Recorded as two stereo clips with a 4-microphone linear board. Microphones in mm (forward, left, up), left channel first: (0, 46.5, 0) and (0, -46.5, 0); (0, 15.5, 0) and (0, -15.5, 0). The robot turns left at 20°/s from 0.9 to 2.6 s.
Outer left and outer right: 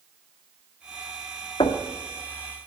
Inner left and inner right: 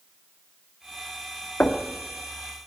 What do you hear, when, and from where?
1.6 s knocking: 80° left, 1.5 m